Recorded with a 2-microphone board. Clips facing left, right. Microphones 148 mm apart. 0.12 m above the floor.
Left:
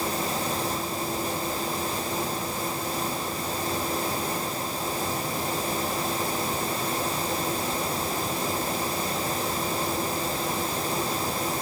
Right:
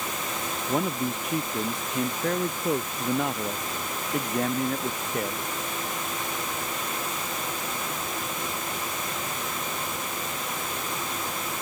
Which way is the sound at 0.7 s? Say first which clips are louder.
Right 3 dB; 80° right.